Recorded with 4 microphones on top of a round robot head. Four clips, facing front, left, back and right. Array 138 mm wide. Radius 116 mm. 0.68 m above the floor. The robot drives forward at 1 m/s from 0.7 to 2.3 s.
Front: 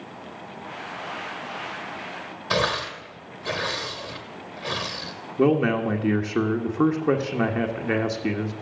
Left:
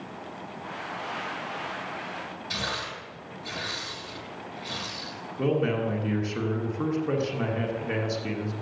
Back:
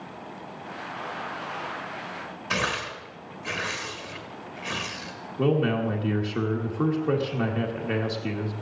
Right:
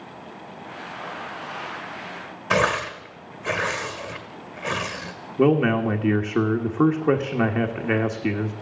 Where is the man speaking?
60° right, 1.5 m.